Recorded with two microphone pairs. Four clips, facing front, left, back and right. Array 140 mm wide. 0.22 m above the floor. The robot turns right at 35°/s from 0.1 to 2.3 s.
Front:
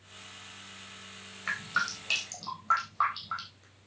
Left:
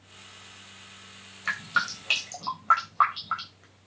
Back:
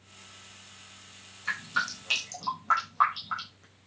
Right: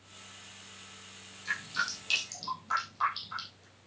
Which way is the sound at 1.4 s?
75° left.